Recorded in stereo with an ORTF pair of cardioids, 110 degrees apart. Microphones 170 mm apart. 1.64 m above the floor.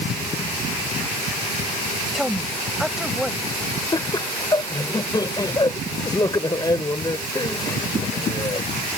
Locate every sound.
2.1 s a woman speaking: straight ahead
3.9 s laughter: 25° left